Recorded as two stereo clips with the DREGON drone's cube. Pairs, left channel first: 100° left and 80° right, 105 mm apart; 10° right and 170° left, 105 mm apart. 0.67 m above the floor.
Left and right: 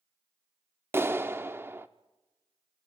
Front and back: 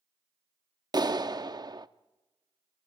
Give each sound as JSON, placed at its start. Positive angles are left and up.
{"t": 0.9, "sound": "a clap", "azimuth_deg": -140, "distance_m": 0.7}